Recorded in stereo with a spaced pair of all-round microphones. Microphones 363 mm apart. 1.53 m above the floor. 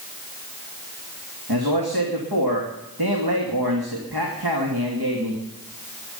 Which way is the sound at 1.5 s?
85° right.